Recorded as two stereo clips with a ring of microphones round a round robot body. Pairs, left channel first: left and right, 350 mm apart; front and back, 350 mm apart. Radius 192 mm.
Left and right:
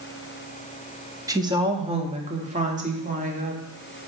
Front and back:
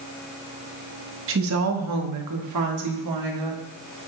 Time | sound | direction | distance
1.3 | a woman speaking | 165° right | 1.0 m